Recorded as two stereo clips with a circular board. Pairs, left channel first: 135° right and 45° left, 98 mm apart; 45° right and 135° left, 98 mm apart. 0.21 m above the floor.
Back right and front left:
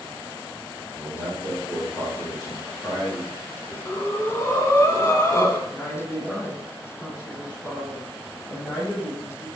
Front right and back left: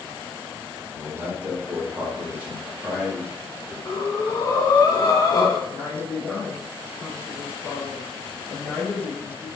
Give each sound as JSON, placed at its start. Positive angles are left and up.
{"t": 0.9, "sound": "a man speaking", "azimuth_deg": -155, "distance_m": 2.0}
{"t": 3.9, "sound": "breathing", "azimuth_deg": -85, "distance_m": 0.7}
{"t": 5.7, "sound": "a woman speaking", "azimuth_deg": 180, "distance_m": 1.8}